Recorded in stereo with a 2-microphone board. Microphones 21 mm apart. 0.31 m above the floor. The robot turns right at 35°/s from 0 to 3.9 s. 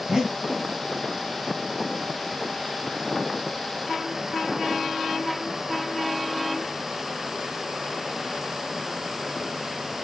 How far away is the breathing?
About 1.4 m.